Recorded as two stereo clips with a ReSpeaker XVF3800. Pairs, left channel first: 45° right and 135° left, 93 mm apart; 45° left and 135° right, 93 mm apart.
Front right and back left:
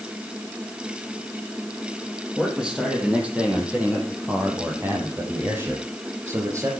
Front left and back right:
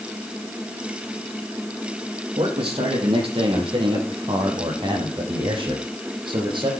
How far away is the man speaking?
About 7 m.